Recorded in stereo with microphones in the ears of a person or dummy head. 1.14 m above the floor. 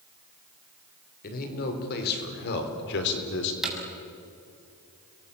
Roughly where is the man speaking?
Left.